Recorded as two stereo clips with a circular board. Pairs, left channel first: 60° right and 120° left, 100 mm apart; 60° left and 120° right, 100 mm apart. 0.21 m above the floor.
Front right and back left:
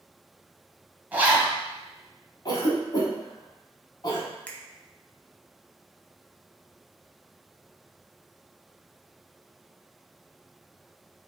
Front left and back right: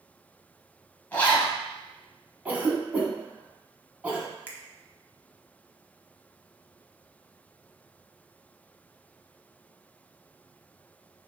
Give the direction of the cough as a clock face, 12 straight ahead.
2 o'clock.